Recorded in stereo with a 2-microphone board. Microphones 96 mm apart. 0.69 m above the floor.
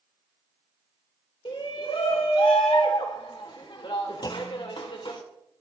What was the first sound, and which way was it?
A shout, 60° left (ahead or behind).